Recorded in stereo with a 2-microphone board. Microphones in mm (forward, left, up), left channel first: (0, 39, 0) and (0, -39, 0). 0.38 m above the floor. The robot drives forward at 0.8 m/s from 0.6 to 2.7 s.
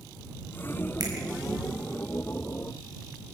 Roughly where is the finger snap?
Right.